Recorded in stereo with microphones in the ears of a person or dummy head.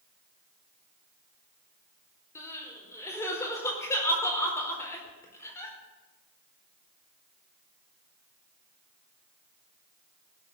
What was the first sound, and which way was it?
Crying, 20° left (ahead or behind).